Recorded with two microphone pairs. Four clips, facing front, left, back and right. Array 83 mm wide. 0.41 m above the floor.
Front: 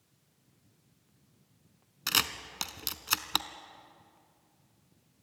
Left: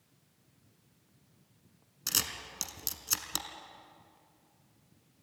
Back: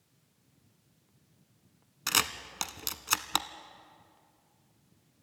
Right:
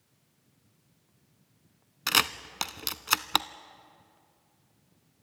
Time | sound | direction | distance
2.1 | a camera shutter | 100° right | 0.6 m